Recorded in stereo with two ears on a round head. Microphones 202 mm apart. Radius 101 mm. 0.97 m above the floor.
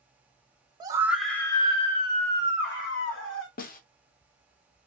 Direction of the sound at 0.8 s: 20° right (ahead or behind).